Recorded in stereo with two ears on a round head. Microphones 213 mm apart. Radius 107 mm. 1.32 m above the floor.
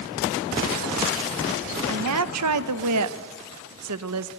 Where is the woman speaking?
75° right (ahead or behind), 1.0 m.